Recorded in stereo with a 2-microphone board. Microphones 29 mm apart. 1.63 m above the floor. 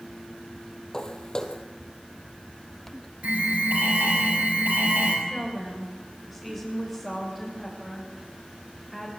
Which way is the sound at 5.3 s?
10° right (ahead or behind).